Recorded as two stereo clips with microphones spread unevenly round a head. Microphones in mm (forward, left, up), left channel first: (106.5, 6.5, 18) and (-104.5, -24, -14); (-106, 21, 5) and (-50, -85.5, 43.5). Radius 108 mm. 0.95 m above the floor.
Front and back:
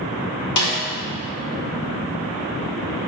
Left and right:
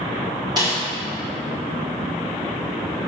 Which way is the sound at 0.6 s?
10° left.